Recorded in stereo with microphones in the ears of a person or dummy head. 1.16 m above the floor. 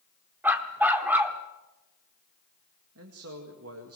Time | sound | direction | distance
0.4 | a dog barking | 5° right (ahead or behind) | 1.0 m
3.0 | a man speaking | 70° right (ahead or behind) | 2.0 m